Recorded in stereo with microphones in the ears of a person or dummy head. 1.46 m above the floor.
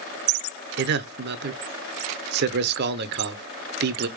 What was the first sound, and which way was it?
A man speaking, 55° right (ahead or behind).